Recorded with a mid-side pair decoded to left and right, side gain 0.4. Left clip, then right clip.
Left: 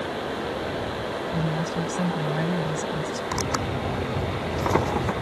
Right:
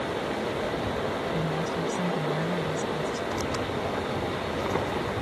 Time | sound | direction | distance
1.3 | a woman speaking | 40° left | ?
3.3 | tearing paper | 60° left | ?